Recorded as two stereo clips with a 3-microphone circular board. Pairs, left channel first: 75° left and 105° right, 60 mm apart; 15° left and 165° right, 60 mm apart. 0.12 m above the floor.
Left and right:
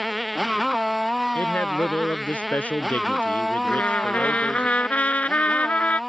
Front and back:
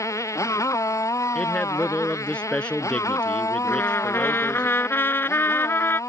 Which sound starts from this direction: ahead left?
A man speaking, at 1.4 s.